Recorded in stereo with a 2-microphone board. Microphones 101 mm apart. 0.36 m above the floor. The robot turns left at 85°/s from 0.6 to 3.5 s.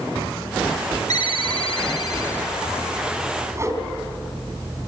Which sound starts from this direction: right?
A whoosh, at 3.5 s.